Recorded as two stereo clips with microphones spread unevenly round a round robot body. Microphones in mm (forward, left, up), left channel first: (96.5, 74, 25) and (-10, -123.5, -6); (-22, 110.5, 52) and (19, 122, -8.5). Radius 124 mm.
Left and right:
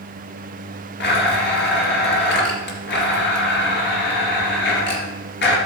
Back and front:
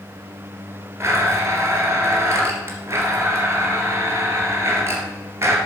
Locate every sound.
1.0 s a blender: 20° left, 2.5 m